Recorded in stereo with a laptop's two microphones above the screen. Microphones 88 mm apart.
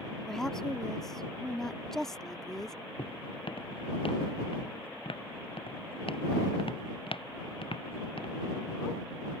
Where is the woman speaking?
5° left (ahead or behind).